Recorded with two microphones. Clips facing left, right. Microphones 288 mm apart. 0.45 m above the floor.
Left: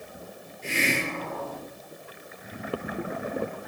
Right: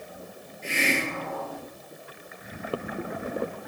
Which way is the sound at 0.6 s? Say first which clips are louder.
Even; 40° left (ahead or behind).